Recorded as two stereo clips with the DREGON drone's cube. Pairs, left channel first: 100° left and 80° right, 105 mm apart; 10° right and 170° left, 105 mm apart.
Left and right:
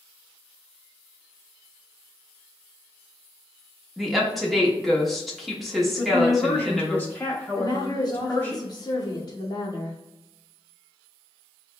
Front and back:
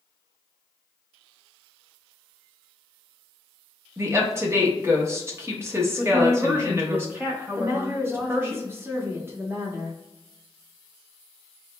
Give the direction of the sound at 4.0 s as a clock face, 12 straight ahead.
6 o'clock.